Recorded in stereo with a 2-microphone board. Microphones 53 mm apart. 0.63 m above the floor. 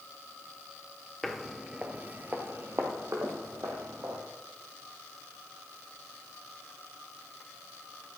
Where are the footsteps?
5° left (ahead or behind), 0.6 m; by 4.2 s 65° right (ahead or behind), 1.5 m.